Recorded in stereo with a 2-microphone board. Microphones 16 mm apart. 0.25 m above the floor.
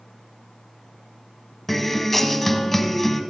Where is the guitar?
15° left (ahead or behind), 0.9 m.